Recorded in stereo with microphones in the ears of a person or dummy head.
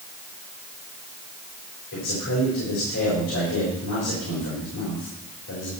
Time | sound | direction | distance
1.9 | a man speaking | 70° left (ahead or behind) | 4.5 m